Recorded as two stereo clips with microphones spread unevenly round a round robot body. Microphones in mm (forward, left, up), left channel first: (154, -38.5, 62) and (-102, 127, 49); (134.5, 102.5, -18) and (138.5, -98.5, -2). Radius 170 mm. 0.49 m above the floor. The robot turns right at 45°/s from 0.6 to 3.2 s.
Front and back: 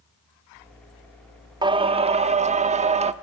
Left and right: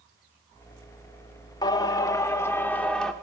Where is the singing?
100° left, 0.6 m; by 3.1 s 170° left, 0.6 m.